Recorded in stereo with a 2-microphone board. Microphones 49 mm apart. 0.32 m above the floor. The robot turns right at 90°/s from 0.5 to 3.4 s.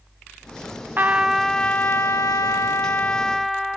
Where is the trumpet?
40° right, 0.6 m; by 3.8 s straight behind, 0.6 m.